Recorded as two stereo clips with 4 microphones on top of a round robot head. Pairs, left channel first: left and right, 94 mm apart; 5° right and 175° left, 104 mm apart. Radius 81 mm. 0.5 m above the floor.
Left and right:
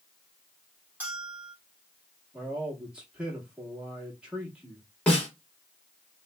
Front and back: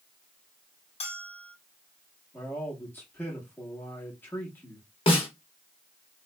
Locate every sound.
1.0 s a bell: 15° right, 1.8 m
2.3 s a man speaking: 30° right, 1.2 m
5.1 s a snare drum: 10° left, 1.5 m